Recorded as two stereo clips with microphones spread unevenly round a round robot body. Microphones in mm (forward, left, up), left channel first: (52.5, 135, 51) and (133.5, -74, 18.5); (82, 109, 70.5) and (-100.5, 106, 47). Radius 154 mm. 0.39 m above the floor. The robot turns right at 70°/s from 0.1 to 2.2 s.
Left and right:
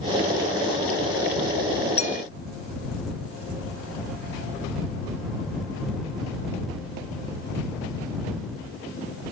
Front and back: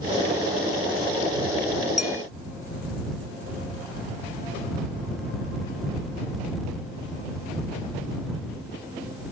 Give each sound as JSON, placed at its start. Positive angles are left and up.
{"t": 2.0, "sound": "a clink", "azimuth_deg": 50}